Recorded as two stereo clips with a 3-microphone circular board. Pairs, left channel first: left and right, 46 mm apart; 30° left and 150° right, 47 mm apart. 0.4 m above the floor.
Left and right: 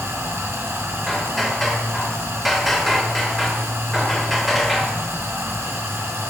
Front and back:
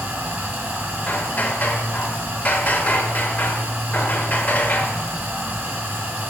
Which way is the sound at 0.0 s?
100° right.